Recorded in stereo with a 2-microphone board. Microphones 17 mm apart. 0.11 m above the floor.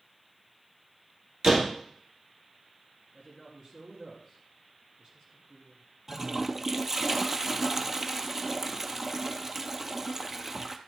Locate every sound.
1.4 s a door slam: 35° right (ahead or behind), 2 m
3.1 s a woman speaking: 45° right (ahead or behind), 3 m
6.1 s a toilet flushing: 20° right (ahead or behind), 0.6 m